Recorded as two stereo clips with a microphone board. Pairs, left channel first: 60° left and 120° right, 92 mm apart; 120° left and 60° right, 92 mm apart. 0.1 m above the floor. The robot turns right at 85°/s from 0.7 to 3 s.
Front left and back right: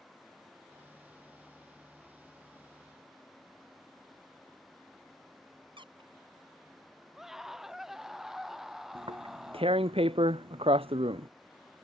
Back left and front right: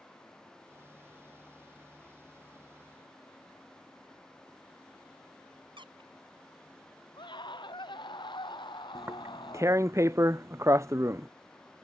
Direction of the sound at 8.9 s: 120° right.